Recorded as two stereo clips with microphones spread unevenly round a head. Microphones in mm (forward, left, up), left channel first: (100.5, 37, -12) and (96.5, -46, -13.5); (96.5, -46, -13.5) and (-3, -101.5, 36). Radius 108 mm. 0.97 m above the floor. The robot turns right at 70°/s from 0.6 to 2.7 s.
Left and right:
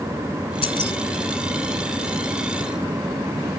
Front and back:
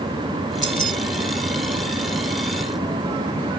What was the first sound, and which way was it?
Keys jangling, 140° left.